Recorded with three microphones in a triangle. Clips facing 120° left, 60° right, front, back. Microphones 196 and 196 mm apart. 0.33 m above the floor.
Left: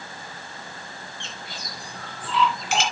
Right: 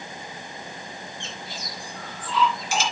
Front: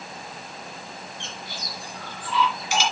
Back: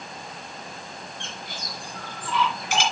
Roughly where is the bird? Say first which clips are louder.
Right 2 dB, even; behind left.